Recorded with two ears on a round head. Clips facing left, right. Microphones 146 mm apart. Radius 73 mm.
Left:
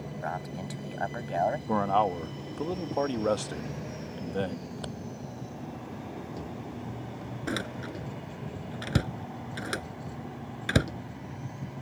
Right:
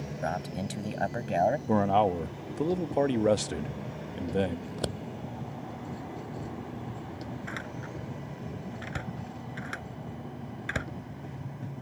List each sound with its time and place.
0.2 s a man speaking: 35° right (ahead or behind); by 1.6 s 25° right (ahead or behind)
1.7 s a man speaking: 20° right (ahead or behind)
4.7 s scissors: 50° right (ahead or behind)
7.5 s a door slam: 45° left (ahead or behind)